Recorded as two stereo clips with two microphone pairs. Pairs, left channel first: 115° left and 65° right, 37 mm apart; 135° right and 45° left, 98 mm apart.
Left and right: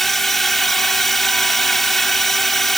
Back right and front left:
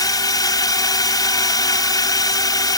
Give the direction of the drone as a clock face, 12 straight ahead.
6 o'clock.